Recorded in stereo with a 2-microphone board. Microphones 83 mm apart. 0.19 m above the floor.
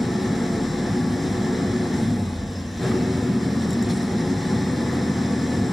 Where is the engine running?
Centre (ahead or behind), 3 m.